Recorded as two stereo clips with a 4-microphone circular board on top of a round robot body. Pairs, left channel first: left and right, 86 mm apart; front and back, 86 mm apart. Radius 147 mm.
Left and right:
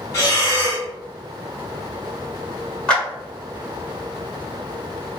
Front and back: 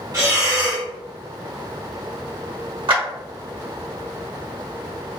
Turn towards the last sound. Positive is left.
turn(degrees=170)